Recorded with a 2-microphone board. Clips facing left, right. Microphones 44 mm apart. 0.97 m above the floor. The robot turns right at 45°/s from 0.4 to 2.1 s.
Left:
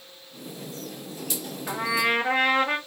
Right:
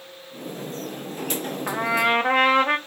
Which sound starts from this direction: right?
A trumpet, at 1.7 s.